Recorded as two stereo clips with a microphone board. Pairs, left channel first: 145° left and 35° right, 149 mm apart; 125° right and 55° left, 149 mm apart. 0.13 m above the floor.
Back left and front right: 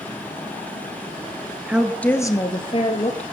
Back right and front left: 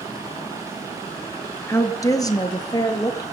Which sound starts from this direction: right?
A woman speaking, at 1.7 s.